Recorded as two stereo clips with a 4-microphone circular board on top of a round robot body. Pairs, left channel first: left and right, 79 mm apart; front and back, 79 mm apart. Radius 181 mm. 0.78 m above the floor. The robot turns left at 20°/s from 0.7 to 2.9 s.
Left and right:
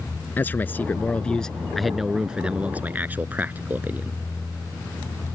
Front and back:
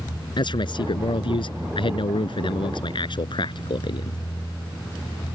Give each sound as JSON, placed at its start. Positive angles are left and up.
{"t": 0.4, "sound": "a man speaking", "azimuth_deg": 25}